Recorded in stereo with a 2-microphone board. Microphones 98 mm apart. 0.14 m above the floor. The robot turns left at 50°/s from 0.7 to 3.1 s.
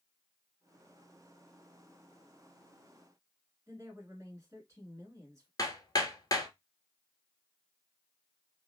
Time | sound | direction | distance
3.7 | a woman speaking | 30° right (ahead or behind) | 1.3 m
5.6 | hammering | 40° left (ahead or behind) | 0.7 m